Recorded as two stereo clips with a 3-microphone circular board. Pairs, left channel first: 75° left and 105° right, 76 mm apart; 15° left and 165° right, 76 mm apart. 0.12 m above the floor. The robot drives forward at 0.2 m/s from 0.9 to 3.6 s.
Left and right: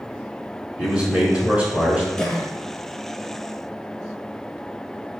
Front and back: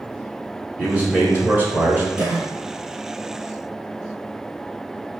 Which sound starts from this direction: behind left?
A cough, at 2.2 s.